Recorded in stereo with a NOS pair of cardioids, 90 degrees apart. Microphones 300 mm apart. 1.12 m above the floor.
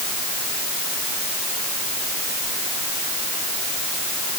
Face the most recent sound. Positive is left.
No sound to turn to.